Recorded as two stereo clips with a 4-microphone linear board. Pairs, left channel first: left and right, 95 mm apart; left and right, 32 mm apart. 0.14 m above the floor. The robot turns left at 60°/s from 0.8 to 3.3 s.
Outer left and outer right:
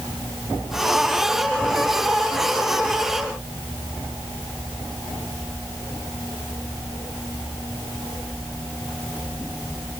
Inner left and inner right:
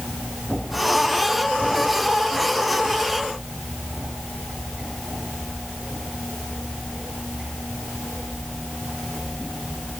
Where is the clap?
I don't hear a clap.